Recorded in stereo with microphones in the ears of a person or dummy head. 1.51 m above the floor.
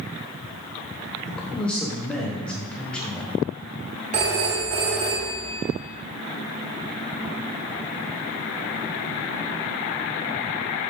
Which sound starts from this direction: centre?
A man speaking, at 1.3 s.